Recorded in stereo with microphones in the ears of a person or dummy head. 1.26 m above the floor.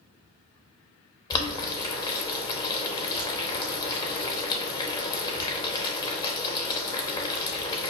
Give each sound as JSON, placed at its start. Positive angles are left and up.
{"t": 1.3, "sound": "boiling", "side_deg": 20, "distance_m": 0.7}